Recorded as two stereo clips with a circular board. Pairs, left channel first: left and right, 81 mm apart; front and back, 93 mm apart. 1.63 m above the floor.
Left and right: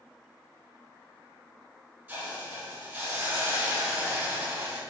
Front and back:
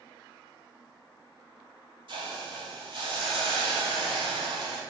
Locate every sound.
2.1 s a hiss: 160° right, 3.5 m